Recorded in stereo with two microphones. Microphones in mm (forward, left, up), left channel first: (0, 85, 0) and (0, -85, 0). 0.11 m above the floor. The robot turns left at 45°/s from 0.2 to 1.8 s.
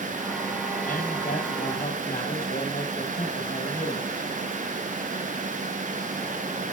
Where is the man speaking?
115° left, 3 m; by 4.2 s 70° left, 3 m.